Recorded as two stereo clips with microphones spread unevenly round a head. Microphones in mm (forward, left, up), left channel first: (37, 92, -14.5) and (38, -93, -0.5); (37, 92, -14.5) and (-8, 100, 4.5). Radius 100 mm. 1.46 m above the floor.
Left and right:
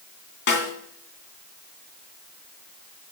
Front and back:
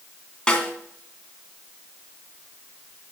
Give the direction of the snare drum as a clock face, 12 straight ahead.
10 o'clock.